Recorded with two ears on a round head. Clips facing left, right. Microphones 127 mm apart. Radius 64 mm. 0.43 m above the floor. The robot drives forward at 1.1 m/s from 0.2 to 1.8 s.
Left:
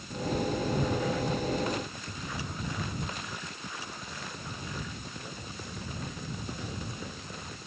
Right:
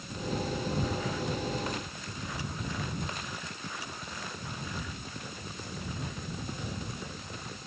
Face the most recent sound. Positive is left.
No sound to turn to.